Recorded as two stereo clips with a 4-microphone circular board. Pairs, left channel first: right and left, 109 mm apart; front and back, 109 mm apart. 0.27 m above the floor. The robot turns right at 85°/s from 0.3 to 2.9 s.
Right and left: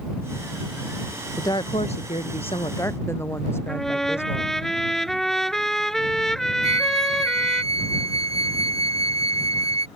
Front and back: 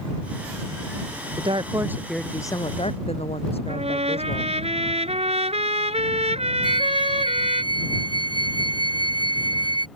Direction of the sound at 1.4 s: 155° right.